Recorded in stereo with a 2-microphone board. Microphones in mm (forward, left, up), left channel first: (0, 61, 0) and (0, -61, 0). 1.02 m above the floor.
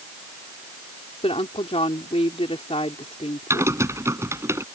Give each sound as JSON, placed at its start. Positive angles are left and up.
{"t": 1.2, "sound": "a woman speaking", "side_deg": 60}
{"t": 3.5, "sound": "typing on a keyboard", "side_deg": -25}